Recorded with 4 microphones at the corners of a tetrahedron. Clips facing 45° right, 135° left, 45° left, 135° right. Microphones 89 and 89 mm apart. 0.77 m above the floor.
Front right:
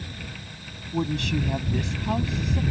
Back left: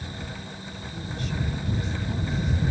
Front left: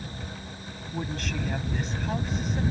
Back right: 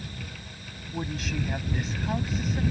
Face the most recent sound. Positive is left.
turn(degrees=-45)